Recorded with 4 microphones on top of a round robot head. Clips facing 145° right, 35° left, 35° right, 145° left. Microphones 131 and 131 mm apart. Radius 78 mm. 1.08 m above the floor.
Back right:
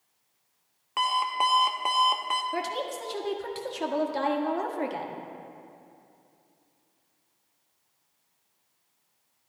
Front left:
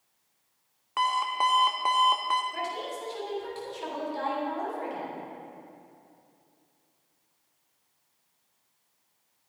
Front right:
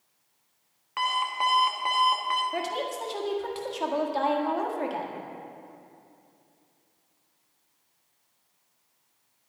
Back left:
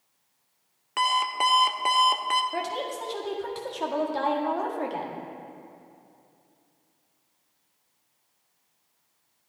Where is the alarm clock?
140° left, 0.5 m.